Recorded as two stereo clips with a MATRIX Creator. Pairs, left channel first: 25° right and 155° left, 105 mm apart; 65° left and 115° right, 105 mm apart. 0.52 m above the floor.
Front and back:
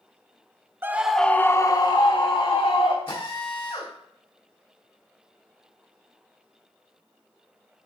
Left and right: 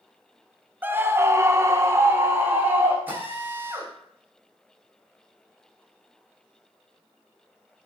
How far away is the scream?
About 0.7 m.